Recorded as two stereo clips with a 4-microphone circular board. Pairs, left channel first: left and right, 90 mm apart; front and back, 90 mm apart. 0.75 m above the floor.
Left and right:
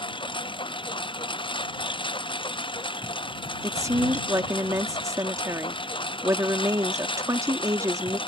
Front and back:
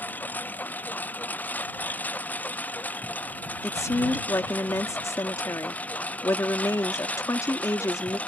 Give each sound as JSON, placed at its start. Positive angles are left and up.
{"t": 0.0, "sound": "a lawn mower", "azimuth_deg": 70}
{"t": 3.6, "sound": "a woman speaking", "azimuth_deg": -45}